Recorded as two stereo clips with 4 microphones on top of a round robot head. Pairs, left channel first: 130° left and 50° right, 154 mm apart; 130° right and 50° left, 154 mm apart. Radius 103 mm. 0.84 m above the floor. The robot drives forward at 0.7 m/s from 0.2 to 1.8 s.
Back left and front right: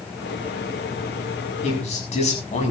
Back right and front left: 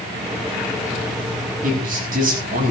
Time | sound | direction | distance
1.6 | a man speaking | 85° left | 6.5 m